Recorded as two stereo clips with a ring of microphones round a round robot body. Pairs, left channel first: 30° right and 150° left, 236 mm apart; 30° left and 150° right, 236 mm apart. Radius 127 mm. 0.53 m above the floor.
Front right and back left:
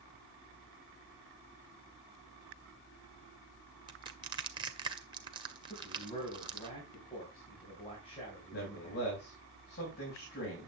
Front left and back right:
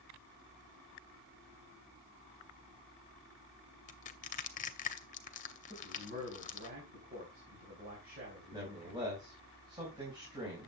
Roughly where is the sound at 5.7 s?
Right.